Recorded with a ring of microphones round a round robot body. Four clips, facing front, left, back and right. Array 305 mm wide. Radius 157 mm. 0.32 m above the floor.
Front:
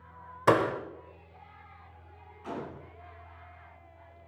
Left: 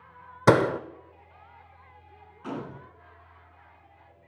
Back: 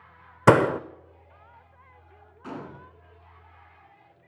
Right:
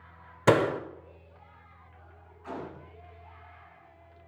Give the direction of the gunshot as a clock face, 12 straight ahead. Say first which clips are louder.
Left 3 dB, even; 8 o'clock.